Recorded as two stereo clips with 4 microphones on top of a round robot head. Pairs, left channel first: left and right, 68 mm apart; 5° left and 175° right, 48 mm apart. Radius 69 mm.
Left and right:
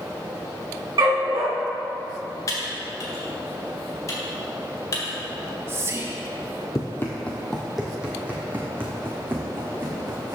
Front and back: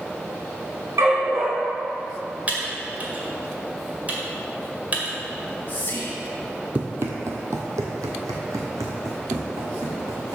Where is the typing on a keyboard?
130° left, 1.9 m.